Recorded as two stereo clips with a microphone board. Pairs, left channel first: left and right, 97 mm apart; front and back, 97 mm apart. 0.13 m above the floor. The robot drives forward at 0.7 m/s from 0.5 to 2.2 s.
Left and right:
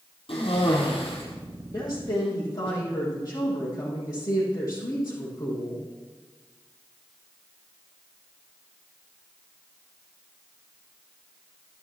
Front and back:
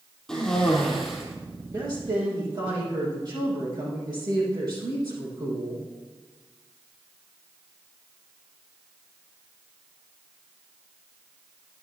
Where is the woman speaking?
135° left, 4.5 m; by 5.8 s 140° left, 4.5 m.